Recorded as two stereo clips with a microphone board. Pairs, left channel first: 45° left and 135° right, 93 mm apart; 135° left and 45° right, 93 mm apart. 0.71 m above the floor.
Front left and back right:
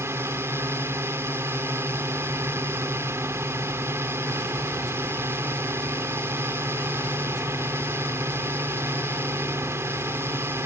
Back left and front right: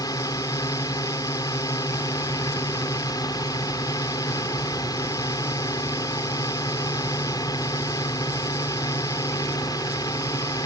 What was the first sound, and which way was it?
A drone, 170° left.